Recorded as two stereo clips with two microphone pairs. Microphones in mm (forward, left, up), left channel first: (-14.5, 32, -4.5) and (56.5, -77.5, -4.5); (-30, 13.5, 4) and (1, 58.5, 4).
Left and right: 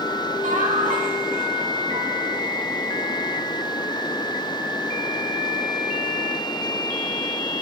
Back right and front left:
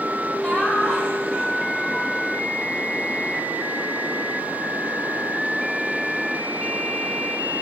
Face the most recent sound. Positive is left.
turn(degrees=-55)